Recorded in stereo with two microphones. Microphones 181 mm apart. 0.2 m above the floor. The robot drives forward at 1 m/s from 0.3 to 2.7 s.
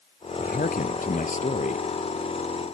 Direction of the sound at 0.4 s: 55° left (ahead or behind).